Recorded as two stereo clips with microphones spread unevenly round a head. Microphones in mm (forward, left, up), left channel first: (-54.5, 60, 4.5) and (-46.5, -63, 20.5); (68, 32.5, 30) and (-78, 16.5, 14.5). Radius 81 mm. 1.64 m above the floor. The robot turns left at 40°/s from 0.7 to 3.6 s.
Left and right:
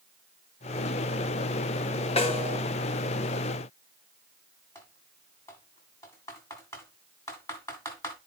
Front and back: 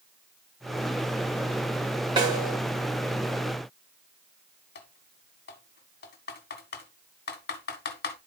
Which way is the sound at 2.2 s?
125° left.